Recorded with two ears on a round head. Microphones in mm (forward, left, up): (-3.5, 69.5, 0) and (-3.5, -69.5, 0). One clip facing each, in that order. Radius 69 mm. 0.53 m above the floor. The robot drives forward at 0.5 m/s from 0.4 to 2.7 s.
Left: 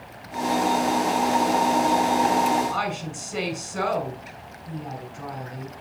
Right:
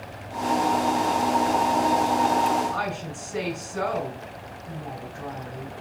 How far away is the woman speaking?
About 5.5 m.